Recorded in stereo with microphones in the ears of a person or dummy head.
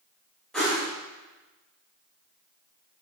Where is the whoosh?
Centre (ahead or behind), 1.2 m.